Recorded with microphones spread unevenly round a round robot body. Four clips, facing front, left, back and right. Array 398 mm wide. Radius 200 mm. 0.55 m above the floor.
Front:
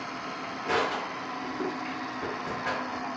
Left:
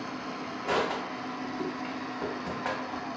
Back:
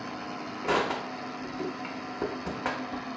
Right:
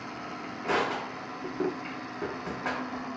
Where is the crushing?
165° right, 0.5 m.